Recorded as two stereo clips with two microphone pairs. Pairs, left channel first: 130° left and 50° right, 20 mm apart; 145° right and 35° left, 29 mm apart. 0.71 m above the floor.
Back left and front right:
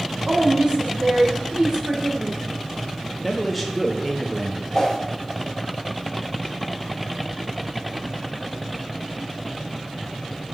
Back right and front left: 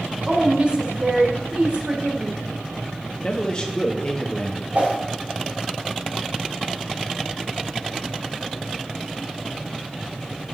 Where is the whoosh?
60° left, 2 m.